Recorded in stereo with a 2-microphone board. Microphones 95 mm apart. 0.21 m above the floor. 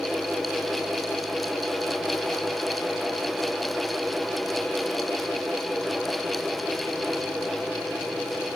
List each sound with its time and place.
Only background noise.